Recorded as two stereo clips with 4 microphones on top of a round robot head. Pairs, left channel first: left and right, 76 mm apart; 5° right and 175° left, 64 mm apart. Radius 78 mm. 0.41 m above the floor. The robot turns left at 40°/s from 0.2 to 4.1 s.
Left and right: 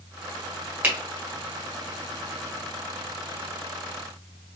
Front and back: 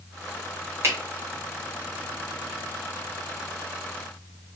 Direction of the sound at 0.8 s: 155° right.